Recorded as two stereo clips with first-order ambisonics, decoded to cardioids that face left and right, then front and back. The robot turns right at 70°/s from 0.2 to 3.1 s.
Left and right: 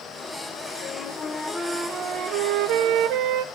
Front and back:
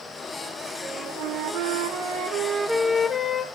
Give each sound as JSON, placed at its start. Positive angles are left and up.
{"t": 0.8, "sound": "a flute", "azimuth_deg": 130, "distance_m": 0.7}